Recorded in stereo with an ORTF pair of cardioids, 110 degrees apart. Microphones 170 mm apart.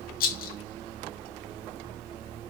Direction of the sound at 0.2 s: 60° left.